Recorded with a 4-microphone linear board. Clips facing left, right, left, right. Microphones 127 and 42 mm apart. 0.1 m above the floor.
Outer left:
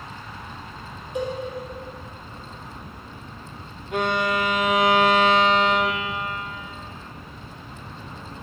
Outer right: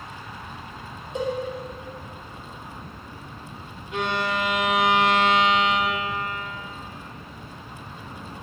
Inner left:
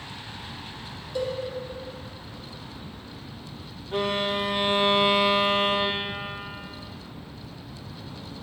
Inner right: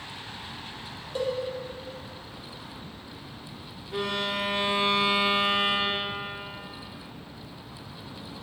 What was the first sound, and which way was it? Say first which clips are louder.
A cowbell: even, even; 25° right (ahead or behind).